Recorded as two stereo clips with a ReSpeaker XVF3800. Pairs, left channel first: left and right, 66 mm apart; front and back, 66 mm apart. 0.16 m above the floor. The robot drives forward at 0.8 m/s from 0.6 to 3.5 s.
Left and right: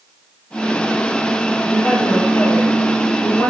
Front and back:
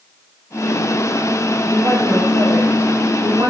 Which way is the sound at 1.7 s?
145° left.